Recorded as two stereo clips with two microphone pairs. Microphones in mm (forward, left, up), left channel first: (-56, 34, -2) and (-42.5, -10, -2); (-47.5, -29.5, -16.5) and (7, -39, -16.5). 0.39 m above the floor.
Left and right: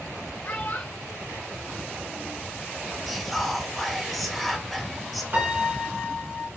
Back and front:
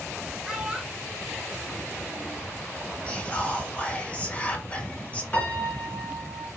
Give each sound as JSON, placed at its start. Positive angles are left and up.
{"t": 0.4, "sound": "a child speaking", "azimuth_deg": 75, "distance_m": 2.5}
{"t": 3.1, "sound": "whispering", "azimuth_deg": -170, "distance_m": 1.1}
{"t": 5.3, "sound": "a piano", "azimuth_deg": -130, "distance_m": 2.0}